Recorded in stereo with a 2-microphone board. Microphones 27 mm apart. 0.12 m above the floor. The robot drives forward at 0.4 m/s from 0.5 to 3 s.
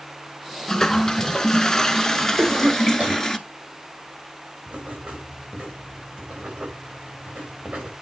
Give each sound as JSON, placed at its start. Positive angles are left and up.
{"t": 0.7, "sound": "a toilet flushing", "side_deg": 20, "distance_m": 0.9}
{"t": 2.4, "sound": "a cough", "side_deg": -40, "distance_m": 5.0}
{"t": 4.7, "sound": "writing", "side_deg": -35, "distance_m": 6.0}